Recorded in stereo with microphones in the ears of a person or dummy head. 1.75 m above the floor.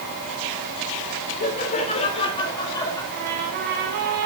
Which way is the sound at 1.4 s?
50° left (ahead or behind).